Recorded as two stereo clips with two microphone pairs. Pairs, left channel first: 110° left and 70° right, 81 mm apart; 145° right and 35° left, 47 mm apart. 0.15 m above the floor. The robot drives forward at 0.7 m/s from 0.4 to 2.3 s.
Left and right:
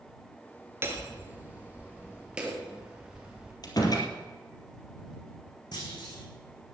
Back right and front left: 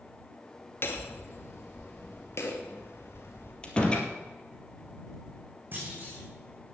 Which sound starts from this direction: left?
A clunk, at 5.7 s.